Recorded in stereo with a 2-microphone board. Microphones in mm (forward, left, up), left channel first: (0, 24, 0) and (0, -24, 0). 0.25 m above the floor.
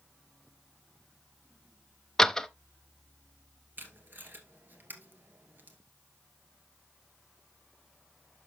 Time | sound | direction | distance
2.2 | a door slam | 10° left (ahead or behind) | 0.6 m
3.8 | tape being pulled | 50° right (ahead or behind) | 2 m